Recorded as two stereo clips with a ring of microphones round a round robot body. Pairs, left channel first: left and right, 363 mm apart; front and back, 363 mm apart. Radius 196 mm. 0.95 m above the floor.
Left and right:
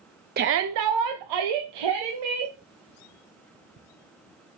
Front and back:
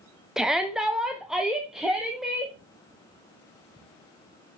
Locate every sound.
0.4 s a shout: 95° right, 0.5 m; by 2.5 s 90° right, 1.8 m